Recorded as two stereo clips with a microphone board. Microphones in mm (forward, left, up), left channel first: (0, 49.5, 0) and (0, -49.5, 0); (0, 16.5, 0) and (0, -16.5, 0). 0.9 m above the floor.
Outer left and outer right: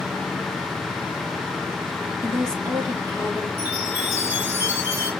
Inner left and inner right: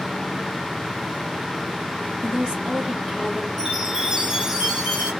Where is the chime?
25° right (ahead or behind), 2.5 m.